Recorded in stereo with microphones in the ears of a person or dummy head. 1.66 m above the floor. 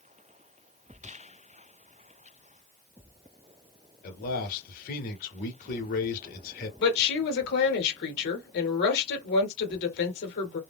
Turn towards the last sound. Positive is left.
turn(degrees=55)  # may be behind; listen again after turning